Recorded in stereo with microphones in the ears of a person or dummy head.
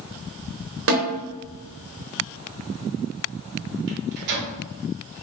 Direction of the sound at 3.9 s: 60° right (ahead or behind).